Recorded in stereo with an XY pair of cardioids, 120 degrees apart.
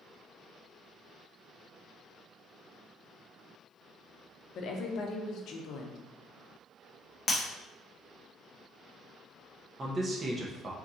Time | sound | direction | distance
4.5 | a woman speaking | 65° left | 0.7 m
7.3 | breaking glass | 20° left | 0.9 m
9.8 | a man speaking | 30° right | 0.9 m